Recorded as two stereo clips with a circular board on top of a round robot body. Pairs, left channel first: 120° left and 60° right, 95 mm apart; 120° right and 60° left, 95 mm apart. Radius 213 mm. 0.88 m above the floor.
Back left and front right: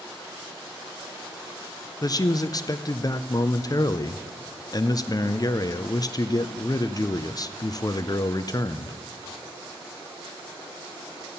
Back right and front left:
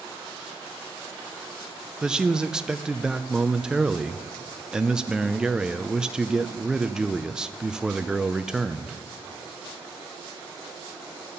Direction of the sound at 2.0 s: 140° left.